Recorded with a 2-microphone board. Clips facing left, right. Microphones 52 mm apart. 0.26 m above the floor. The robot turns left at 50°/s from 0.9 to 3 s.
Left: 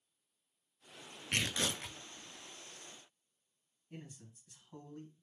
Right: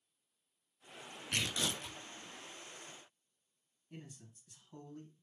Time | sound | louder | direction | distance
1.3 | tearing paper | left 2 dB | 135° left | 0.5 m
3.9 | a man speaking | left 1 dB | 10° left (ahead or behind) | 1.8 m